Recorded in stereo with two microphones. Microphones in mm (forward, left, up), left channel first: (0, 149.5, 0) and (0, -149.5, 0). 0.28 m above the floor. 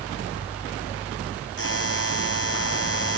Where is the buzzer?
45° left (ahead or behind).